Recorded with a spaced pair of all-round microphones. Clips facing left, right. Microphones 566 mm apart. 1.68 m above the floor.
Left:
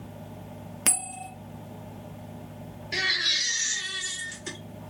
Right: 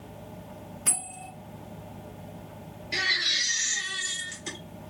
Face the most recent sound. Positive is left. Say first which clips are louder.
# left 1 dB
turn(degrees=-5)  # may be behind; listen again after turning